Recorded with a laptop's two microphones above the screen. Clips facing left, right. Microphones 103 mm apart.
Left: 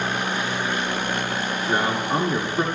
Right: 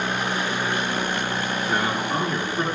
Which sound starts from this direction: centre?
A man speaking, at 1.7 s.